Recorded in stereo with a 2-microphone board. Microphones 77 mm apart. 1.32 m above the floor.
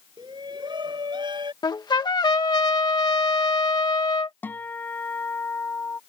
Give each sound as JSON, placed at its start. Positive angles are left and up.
{"t": 0.2, "sound": "a shout", "side_deg": -75}
{"t": 1.6, "sound": "a trumpet", "side_deg": 70}
{"t": 4.4, "sound": "a guitar", "side_deg": 25}